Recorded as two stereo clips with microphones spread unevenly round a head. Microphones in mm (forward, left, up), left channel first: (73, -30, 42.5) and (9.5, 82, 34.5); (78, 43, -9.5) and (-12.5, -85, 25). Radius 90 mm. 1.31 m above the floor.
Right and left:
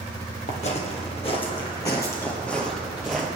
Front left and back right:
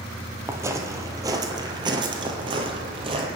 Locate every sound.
0.5 s footsteps: 70° right, 1.9 m; by 3.3 s 155° right, 1.9 m